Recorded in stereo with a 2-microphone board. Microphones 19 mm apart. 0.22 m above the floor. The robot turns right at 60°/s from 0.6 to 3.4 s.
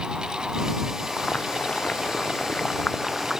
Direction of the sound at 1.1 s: 50° left.